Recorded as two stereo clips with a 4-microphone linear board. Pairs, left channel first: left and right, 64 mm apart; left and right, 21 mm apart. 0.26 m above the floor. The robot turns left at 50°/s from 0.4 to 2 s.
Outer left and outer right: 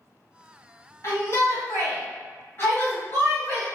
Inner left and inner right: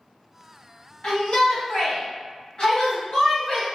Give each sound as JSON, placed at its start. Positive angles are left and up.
{"t": 1.0, "sound": "a shout", "azimuth_deg": 105, "distance_m": 1.4}